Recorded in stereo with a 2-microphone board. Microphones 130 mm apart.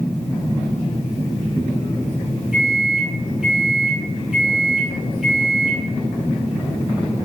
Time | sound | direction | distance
2.5 | a microwave | 5° right (ahead or behind) | 0.9 m